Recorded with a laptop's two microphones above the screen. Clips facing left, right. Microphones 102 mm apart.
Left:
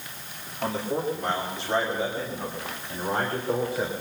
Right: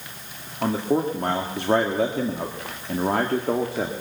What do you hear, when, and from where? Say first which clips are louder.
0.6 s a man speaking: right 5 dB; 40° right (ahead or behind), 1.9 m; by 3.9 s 80° right, 1.9 m